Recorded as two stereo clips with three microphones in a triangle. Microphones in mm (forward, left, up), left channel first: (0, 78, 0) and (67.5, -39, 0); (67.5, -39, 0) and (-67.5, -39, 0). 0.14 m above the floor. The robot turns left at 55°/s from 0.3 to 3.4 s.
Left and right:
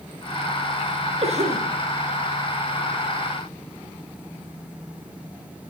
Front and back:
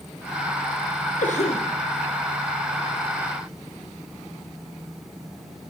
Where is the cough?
20° right, 5 m; by 1.7 s 45° right, 5 m.